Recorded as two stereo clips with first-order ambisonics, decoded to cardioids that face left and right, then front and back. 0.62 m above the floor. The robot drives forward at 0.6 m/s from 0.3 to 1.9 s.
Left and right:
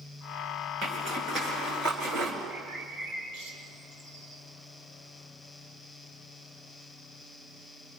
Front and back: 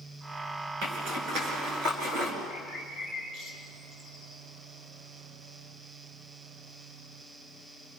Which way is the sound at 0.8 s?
150° right.